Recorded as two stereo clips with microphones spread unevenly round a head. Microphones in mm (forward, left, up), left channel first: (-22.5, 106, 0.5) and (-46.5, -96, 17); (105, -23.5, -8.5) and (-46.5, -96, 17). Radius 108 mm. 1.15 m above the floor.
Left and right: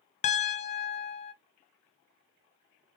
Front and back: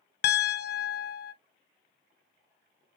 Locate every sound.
0.2 s a piano: 25° left, 0.6 m